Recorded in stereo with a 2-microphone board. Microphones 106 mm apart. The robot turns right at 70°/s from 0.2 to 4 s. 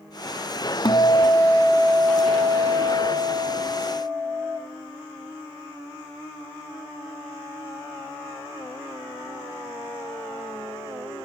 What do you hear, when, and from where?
0.8 s a guitar: 130° left, 1.0 m; by 4.6 s 10° right, 1.0 m